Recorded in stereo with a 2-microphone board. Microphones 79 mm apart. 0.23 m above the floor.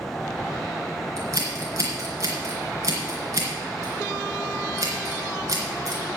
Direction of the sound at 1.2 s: 45° right (ahead or behind).